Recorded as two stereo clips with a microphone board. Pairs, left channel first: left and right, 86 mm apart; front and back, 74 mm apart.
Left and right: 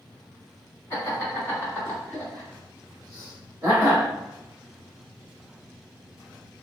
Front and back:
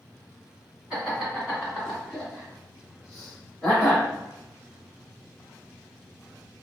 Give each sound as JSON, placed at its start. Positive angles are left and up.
{"t": 0.9, "sound": "laughter", "azimuth_deg": 100, "distance_m": 2.0}